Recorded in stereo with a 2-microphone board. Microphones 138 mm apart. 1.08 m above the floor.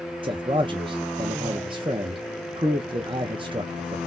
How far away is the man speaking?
About 0.5 m.